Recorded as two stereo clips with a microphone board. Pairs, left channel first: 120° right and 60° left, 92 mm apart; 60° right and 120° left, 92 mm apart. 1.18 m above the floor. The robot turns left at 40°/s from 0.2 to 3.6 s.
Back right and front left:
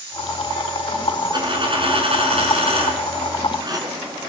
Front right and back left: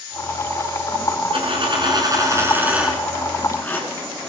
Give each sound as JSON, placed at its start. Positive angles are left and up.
{"t": 1.3, "sound": "a dropped coin", "azimuth_deg": 100, "distance_m": 5.5}